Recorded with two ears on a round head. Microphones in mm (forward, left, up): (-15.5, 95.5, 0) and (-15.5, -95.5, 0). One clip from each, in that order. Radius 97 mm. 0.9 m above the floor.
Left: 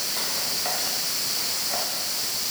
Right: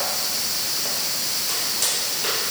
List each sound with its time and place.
Only background noise.